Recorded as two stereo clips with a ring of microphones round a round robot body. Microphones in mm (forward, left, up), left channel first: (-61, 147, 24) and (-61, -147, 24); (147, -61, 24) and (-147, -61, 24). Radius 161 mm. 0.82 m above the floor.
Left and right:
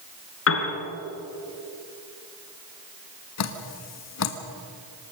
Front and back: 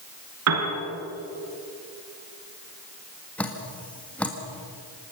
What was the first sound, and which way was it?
A piano, 135° left.